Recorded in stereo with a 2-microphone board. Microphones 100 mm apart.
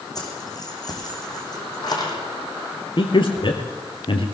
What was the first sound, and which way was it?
Keys jangling, 40° left (ahead or behind).